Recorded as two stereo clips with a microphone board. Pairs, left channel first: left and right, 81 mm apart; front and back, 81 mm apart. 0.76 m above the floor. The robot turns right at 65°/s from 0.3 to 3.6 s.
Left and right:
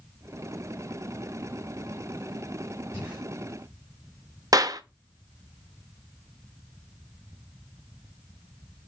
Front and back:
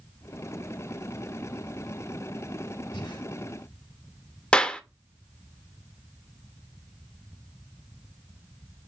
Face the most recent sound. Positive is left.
turn(degrees=-70)